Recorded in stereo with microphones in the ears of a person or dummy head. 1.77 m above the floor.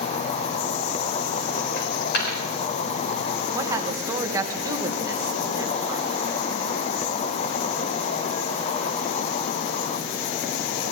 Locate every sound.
0.0 s an insect: 35° left (ahead or behind), 0.9 m
1.8 s a dropped coin: 60° left (ahead or behind), 4 m
3.5 s a woman speaking: 15° right (ahead or behind), 1.6 m